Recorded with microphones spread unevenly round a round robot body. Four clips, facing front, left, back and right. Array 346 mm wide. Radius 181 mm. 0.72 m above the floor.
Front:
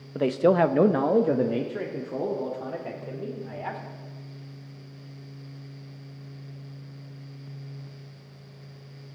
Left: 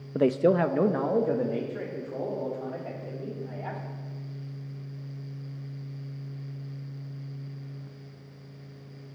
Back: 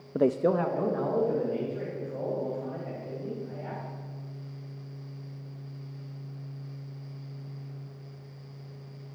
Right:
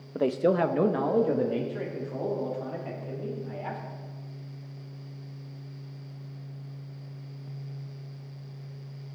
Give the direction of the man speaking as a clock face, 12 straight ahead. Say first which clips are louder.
Left 2 dB, front 4 dB; 7 o'clock.